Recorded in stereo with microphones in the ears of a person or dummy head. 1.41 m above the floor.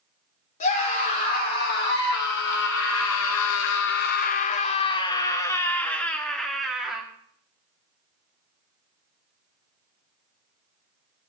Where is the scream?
50° left (ahead or behind), 3 m; by 7.0 s centre (ahead or behind), 2.5 m.